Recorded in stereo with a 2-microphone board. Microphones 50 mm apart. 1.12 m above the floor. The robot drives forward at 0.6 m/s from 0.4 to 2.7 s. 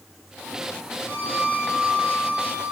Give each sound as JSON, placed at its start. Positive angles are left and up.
{"t": 1.1, "sound": "a violin", "side_deg": -65, "distance_m": 3.5}